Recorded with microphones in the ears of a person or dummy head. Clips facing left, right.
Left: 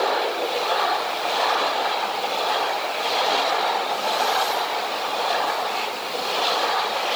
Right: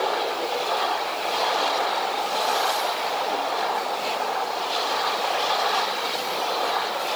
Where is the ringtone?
No ringtone in this recording.